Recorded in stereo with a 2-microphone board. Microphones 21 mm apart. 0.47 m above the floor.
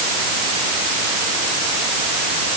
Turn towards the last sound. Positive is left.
No sound to turn to.